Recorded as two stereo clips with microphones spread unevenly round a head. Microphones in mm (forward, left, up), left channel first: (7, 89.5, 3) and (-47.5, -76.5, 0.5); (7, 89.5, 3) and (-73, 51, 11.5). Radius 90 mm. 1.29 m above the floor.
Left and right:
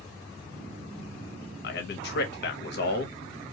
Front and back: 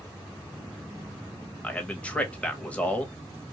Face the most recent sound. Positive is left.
turn(degrees=105)